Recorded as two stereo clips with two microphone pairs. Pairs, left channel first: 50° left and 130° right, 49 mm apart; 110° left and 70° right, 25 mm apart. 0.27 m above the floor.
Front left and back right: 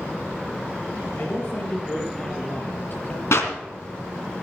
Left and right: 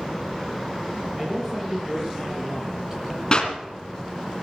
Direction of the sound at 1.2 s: 5° left.